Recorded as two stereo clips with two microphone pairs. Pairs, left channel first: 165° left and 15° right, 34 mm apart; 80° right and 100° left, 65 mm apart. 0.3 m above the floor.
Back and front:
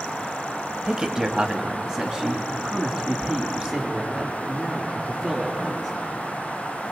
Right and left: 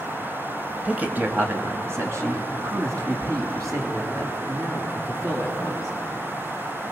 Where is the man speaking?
40° left, 1.4 m; by 5.9 s 70° left, 6.5 m.